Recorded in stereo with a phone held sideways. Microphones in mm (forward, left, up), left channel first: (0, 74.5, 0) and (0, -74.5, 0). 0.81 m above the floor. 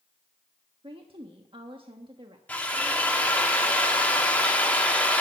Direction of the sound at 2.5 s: 10° left (ahead or behind).